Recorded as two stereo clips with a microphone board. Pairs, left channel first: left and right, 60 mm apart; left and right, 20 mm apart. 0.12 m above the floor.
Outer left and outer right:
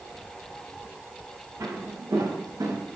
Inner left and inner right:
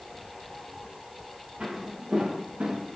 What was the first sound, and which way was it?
Footsteps, 65° right (ahead or behind).